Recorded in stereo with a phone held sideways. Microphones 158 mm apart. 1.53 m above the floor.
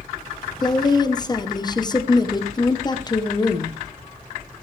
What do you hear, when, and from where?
0.6 s a woman speaking: 30° left (ahead or behind), 1.2 m